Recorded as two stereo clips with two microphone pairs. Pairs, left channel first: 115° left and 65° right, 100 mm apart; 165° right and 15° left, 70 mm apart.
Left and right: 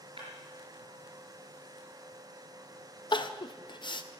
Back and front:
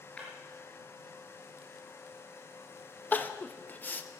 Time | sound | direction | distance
0.2 | breaking glass | 90° right | 4.5 m
3.1 | crying | 140° left | 0.7 m